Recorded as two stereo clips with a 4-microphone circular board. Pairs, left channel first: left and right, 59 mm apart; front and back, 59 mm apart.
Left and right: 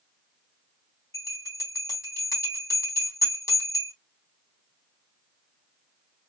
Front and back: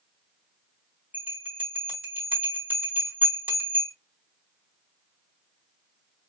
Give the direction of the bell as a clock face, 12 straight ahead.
8 o'clock.